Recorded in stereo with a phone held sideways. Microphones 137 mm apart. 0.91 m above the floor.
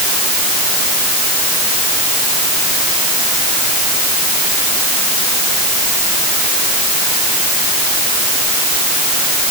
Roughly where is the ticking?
I don't hear ticking.